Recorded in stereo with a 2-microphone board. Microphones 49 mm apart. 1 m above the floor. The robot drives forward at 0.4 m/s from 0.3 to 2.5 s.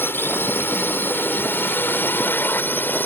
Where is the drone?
50° left (ahead or behind); by 3.1 s 45° left (ahead or behind).